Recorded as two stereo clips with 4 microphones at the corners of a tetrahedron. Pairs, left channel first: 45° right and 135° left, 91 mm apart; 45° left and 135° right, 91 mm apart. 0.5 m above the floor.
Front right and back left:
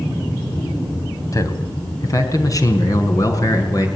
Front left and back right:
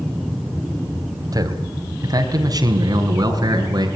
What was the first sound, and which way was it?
A man speaking, 95° right.